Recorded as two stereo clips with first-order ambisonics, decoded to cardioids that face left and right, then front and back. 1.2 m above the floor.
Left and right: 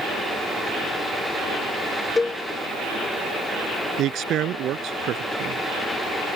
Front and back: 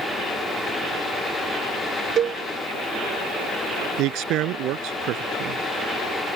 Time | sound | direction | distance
2.2 | a cowbell | 160° left | ?
4.0 | a man speaking | 140° right | ?